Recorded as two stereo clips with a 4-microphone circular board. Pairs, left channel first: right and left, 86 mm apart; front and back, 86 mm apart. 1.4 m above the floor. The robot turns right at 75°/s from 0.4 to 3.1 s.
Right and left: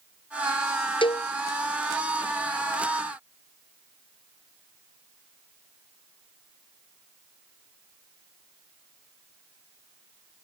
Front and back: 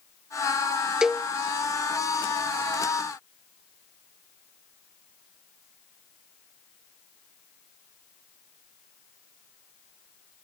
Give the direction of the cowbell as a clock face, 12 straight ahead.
3 o'clock.